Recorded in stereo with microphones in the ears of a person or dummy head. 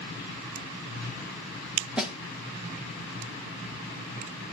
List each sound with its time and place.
2.0 s a snare drum: 5° right (ahead or behind), 1.4 m